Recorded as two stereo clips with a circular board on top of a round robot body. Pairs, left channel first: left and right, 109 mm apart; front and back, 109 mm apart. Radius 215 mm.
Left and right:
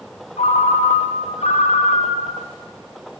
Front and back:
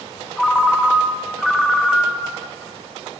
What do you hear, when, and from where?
0.4 s a ringtone: 90° left, 1.3 m